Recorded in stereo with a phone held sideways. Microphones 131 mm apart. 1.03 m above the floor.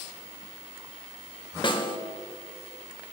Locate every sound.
1.6 s a snare drum: 40° left (ahead or behind), 0.9 m